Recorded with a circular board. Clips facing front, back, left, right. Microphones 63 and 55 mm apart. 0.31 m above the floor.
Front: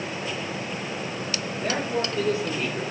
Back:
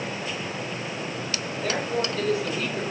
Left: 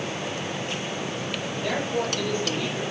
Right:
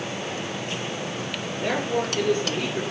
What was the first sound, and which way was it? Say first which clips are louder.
A man speaking: even, right 2 dB; 50° right.